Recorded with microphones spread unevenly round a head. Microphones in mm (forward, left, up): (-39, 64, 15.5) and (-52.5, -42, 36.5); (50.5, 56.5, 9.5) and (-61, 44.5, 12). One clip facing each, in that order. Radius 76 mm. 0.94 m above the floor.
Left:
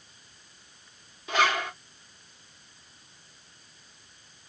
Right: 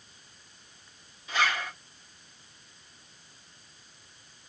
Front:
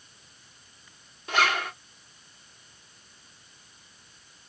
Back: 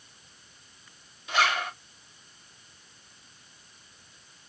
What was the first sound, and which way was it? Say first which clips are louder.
A zipper: left 4 dB, front 1 dB; 50° left.